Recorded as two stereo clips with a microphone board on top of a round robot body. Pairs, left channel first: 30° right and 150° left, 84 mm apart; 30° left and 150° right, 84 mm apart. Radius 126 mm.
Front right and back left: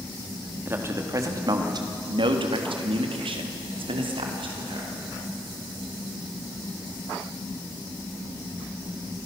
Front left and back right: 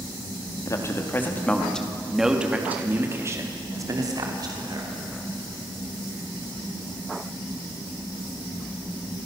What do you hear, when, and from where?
0.7 s a man speaking: 85° left, 2.5 m; by 4.9 s 170° left, 4 m